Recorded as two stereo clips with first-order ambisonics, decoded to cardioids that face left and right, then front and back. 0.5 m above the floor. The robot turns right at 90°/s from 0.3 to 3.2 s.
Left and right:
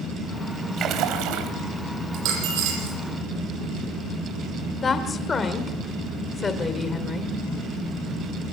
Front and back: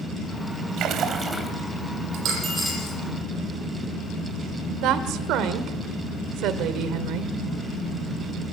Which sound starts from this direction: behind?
A woman speaking, at 4.8 s.